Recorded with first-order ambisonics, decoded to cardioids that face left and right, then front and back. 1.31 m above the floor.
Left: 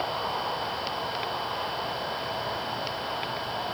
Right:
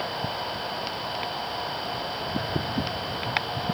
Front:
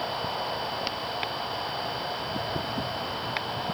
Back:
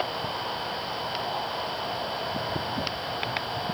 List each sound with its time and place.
Only background noise.